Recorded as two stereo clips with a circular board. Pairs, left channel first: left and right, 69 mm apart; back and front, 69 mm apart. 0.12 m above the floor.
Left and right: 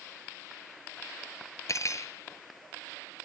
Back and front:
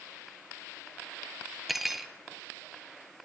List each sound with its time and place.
1.7 s cutlery clinking: 90° left, 1.4 m